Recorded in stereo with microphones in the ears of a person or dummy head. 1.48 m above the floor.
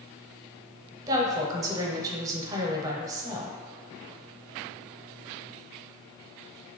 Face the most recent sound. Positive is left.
turn(degrees=-15)  # may be behind; listen again after turning